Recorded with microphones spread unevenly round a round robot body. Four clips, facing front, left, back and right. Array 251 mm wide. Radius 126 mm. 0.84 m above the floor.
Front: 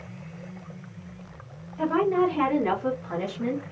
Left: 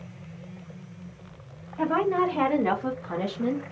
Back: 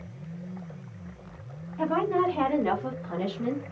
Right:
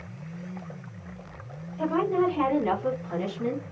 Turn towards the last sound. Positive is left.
turn(degrees=75)